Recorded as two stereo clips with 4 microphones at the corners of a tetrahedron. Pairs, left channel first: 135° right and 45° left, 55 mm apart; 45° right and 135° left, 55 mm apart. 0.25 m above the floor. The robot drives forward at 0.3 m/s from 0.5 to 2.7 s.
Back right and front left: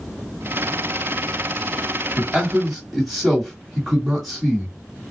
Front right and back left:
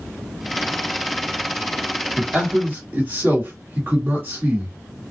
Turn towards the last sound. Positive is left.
turn(degrees=125)